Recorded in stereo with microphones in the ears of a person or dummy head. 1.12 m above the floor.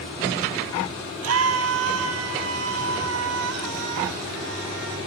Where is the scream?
80° right, 3 m; by 5.0 s 85° right, 6 m.